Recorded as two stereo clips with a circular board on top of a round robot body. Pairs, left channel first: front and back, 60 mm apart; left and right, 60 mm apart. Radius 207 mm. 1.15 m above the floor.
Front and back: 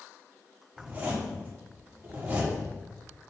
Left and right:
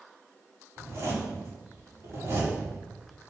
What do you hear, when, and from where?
0.8 s a zipper: 125° right, 5 m